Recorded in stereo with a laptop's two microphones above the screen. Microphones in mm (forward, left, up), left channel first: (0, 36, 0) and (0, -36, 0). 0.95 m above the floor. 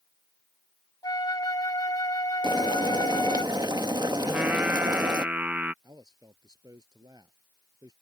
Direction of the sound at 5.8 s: 60° right (ahead or behind).